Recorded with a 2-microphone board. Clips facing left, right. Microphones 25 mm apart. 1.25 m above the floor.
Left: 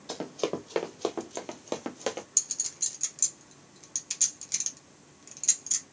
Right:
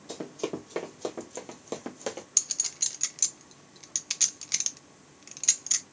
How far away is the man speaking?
I don't hear a man speaking.